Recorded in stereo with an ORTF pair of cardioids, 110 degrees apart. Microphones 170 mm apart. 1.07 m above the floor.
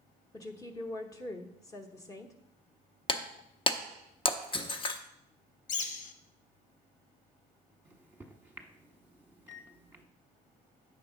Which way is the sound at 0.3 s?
20° left.